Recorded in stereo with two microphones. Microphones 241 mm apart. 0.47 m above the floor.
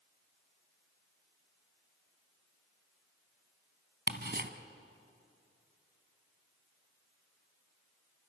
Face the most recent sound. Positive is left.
turn(degrees=-45)  # may be behind; listen again after turning